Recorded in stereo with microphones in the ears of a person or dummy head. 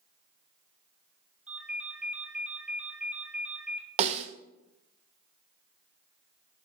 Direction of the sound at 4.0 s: 35° right (ahead or behind).